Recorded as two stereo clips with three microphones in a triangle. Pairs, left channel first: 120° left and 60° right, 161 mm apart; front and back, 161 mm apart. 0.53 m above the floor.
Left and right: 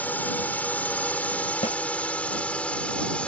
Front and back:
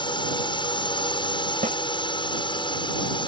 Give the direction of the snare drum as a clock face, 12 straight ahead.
7 o'clock.